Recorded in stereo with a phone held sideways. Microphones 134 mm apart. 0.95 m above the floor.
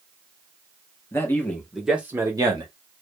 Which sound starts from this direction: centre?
A man speaking, at 1.1 s.